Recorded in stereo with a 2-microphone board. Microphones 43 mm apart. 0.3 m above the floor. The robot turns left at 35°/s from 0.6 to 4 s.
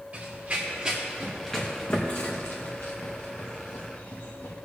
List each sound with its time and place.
0.1 s running footsteps: 30° right (ahead or behind), 3 m; by 4.5 s 50° left (ahead or behind), 3 m